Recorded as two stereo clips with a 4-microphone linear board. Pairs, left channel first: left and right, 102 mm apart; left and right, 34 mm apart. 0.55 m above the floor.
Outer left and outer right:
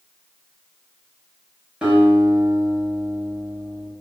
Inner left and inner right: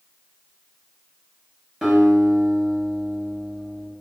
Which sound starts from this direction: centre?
A guitar, at 1.8 s.